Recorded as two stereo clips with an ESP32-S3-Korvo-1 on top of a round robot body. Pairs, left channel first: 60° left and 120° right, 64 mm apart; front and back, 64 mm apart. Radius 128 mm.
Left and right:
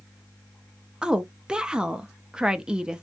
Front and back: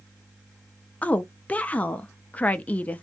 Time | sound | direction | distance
1.0 | a woman speaking | 50° right | 0.6 m